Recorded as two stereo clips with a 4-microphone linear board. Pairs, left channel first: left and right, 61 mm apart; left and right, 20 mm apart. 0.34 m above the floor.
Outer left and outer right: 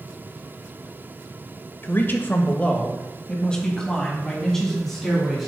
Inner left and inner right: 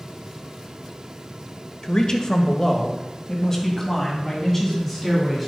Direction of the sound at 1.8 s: 35° left (ahead or behind).